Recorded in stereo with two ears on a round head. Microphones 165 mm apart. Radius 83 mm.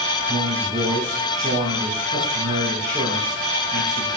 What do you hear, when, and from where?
0.3 s a man speaking: 25° right (ahead or behind), 6 m